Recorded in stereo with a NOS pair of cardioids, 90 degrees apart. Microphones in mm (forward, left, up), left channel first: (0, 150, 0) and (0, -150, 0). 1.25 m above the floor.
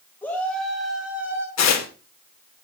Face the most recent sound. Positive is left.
turn(degrees=60)